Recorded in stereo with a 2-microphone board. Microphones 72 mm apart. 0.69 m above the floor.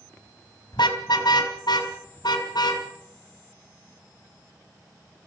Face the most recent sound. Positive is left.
turn(degrees=75)  # may be behind; listen again after turning